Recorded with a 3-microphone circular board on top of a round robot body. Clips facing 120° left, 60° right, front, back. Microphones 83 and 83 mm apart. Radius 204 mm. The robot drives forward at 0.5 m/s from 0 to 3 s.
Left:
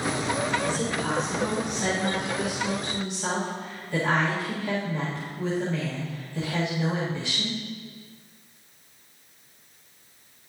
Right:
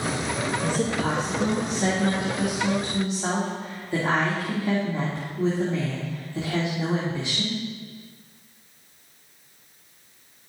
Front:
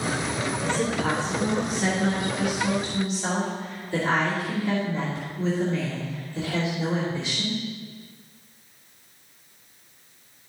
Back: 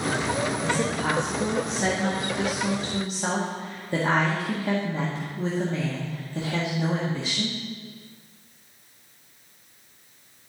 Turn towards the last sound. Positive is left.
turn(degrees=-130)